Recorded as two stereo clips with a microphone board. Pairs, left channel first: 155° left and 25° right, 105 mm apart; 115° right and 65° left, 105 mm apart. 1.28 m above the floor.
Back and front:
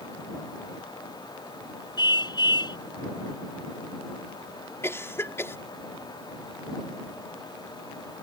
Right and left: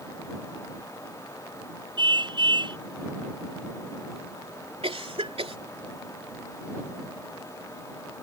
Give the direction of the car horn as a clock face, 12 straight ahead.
8 o'clock.